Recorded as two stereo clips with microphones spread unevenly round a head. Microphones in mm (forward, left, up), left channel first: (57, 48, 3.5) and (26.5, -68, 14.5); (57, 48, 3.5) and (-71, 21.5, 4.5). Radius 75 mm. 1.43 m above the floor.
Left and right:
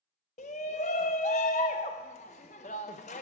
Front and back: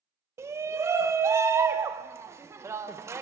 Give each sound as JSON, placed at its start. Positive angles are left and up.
{"t": 0.4, "sound": "a shout", "azimuth_deg": 120, "distance_m": 0.6}